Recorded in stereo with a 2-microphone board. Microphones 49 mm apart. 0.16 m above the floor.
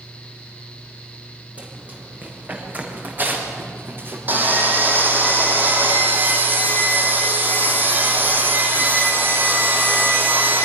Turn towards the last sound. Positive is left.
turn(degrees=-40)  # may be behind; listen again after turning